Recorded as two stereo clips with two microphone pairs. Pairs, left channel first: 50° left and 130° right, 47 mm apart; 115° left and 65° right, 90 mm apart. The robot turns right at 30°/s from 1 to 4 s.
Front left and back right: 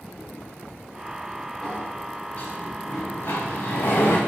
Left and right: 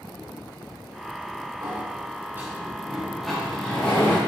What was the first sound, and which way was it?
A sliding door, 25° right.